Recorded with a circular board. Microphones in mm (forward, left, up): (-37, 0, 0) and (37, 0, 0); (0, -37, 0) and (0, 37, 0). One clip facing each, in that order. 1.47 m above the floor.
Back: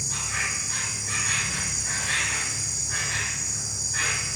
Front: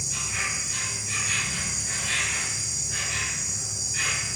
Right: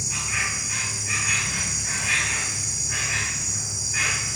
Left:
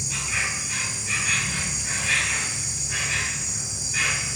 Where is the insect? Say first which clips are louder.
Back 1 dB, even; 165° right, 2 m.